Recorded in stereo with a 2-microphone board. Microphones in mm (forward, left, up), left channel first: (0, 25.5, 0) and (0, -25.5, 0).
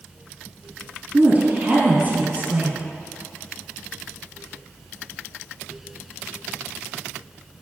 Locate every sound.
1.1 s a woman speaking: 30° right (ahead or behind), 2 m